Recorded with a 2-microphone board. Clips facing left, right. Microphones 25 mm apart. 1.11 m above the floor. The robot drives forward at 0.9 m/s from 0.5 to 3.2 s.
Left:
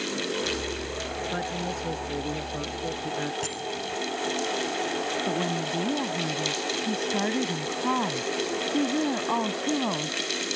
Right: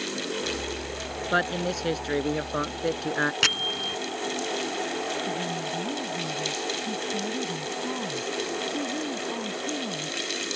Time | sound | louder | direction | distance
1.3 | a man speaking | right 9 dB | 60° right (ahead or behind) | ?
3.4 | a bell | right 8 dB | 80° right | ?
5.3 | a woman speaking | left 2 dB | 65° left (ahead or behind) | ?